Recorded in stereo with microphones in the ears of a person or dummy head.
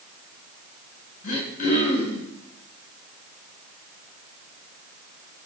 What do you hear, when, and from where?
1.2 s throat clearing: 45° left (ahead or behind), 8 m